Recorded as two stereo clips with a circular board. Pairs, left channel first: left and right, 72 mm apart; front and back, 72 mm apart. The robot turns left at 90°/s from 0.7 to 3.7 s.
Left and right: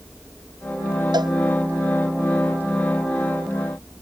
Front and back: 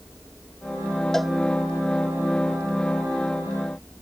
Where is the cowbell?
85° right; by 1.3 s 100° right.